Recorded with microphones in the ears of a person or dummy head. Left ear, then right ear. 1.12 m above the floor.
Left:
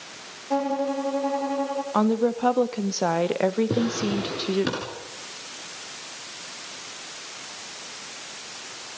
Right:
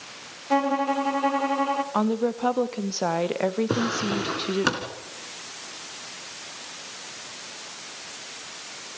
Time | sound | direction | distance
0.5 | a violin | 70° right (ahead or behind) | 2 m
1.9 | a woman speaking | centre (ahead or behind) | 0.9 m
3.7 | a drawer | 45° right (ahead or behind) | 3.5 m